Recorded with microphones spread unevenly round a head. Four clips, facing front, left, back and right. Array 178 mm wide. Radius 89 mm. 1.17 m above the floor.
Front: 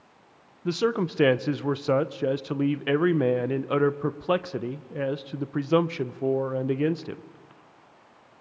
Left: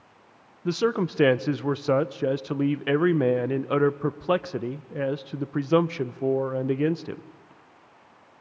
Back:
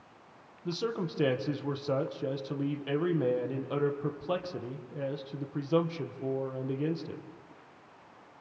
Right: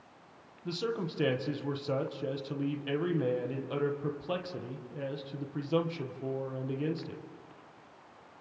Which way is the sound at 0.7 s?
50° left.